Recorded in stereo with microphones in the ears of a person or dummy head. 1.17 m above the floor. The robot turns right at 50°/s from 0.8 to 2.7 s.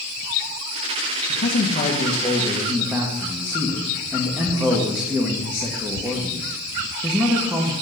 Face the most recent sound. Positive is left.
turn(degrees=-165)